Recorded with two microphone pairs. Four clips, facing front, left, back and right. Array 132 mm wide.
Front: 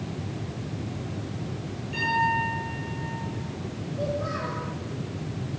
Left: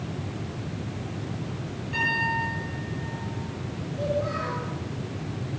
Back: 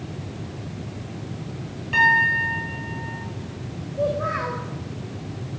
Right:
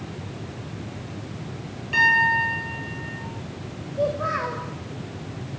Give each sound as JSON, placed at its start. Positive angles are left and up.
{"t": 1.9, "sound": "a piano", "azimuth_deg": -165, "distance_m": 8.5}
{"t": 4.0, "sound": "a child speaking", "azimuth_deg": -120, "distance_m": 5.5}